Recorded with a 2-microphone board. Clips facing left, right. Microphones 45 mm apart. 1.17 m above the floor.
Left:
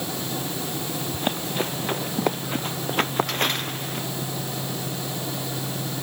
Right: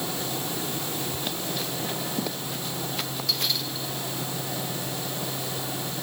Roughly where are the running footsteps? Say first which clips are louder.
Left 5 dB; left.